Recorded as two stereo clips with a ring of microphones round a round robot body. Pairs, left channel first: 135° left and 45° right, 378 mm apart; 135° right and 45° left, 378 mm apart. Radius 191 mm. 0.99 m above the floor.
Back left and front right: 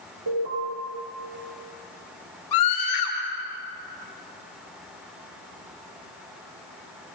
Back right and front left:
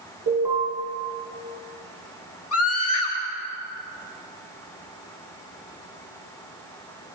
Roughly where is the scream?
Behind.